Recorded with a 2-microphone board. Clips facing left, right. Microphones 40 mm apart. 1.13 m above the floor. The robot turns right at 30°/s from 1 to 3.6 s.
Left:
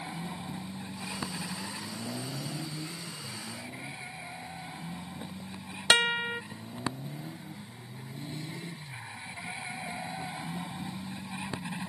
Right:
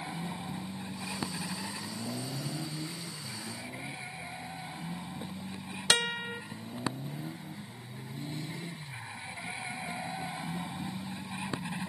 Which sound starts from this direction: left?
A guitar, at 5.9 s.